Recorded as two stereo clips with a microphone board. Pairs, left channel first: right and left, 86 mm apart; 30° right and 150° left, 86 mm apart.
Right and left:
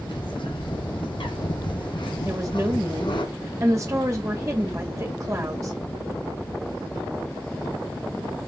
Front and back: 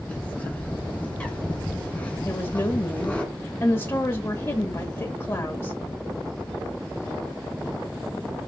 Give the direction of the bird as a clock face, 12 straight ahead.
3 o'clock.